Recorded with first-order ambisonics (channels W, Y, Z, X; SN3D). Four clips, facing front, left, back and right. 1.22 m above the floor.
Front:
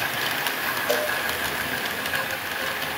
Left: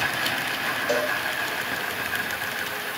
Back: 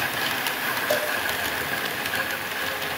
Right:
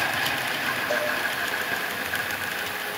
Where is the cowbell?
40° left, 4 m.